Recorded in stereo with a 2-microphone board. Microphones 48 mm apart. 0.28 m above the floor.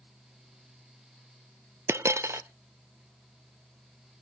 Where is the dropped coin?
75° right (ahead or behind), 0.6 m.